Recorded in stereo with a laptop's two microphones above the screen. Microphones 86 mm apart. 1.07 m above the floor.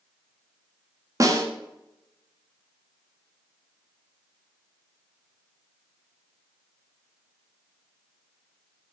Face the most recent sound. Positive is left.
turn(degrees=-40)  # may be behind; listen again after turning